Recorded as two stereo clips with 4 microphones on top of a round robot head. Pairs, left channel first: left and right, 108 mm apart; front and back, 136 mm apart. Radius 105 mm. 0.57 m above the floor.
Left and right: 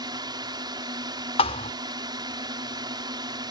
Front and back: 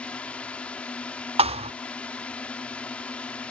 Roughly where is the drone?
Right.